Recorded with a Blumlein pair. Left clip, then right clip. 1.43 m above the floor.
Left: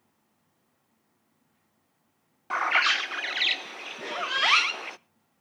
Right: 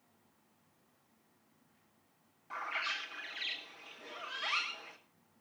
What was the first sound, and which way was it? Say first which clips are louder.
A bird: left 14 dB; 55° left.